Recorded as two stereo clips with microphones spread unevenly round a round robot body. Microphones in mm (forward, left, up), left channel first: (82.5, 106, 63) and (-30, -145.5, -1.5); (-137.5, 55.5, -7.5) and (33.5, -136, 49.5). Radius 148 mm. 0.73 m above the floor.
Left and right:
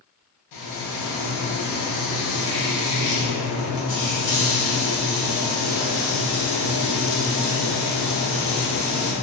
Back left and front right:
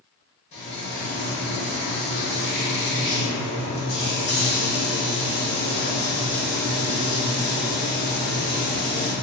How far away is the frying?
About 0.8 m.